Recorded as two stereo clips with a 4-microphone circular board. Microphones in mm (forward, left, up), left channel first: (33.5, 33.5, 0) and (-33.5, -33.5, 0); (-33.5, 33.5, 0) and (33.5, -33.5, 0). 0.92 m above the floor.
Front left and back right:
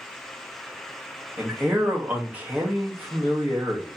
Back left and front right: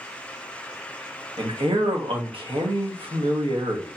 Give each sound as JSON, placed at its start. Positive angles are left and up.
{"t": 1.4, "sound": "a man speaking", "azimuth_deg": -60, "distance_m": 0.9}